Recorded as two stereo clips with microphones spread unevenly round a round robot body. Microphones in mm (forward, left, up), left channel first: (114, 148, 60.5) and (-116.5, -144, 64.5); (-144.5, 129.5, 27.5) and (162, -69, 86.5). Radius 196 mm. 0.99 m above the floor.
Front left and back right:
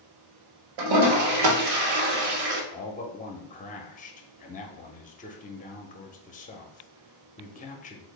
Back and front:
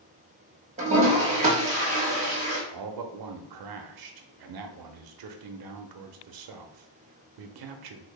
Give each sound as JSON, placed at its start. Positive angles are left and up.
{"t": 0.8, "sound": "a toilet flushing", "azimuth_deg": -105, "distance_m": 0.9}
{"t": 2.7, "sound": "a man speaking", "azimuth_deg": -15, "distance_m": 0.6}